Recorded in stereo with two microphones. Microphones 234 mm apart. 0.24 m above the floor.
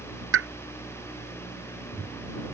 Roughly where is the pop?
Right.